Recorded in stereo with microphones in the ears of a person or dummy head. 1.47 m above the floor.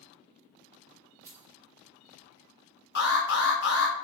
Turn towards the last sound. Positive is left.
turn(degrees=60)  # may be behind; listen again after turning